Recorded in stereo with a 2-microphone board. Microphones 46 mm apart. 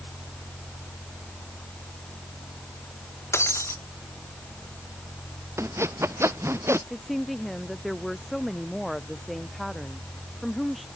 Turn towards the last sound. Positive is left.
turn(degrees=0)  # may be behind; listen again after turning